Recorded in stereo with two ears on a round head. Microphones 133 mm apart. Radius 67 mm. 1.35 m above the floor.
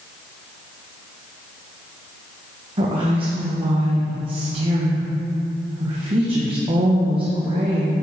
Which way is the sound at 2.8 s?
35° right (ahead or behind).